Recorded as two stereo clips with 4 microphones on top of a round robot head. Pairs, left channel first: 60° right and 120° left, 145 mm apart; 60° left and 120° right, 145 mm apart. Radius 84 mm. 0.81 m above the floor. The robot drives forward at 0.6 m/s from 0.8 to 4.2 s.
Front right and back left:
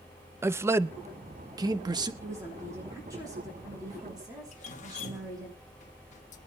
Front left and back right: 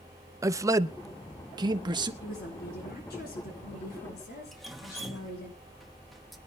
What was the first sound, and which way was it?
A man speaking, 175° right.